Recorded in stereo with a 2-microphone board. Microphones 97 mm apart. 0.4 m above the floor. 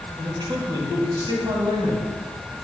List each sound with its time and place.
0.2 s a man speaking: 45° right (ahead or behind), 2.5 m